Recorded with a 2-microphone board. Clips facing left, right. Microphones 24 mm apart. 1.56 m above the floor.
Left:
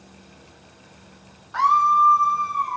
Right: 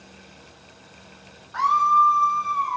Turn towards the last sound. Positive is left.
turn(degrees=-5)  # may be behind; listen again after turning